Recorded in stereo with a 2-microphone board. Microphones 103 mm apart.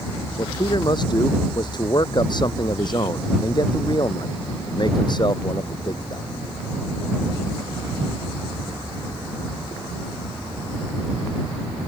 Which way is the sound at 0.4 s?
45° left (ahead or behind).